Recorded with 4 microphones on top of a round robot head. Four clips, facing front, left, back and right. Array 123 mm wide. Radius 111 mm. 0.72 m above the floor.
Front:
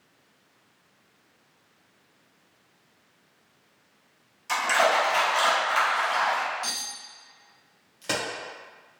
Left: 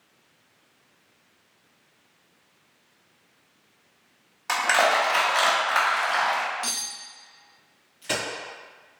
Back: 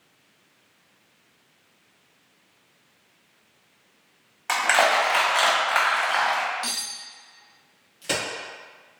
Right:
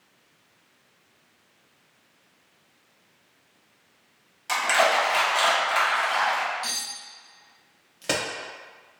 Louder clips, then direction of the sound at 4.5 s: Even, back 2 dB; 150° left.